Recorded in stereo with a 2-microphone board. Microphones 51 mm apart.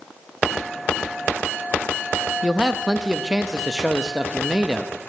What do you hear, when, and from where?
2.4 s a man speaking: 15° right (ahead or behind), 0.6 m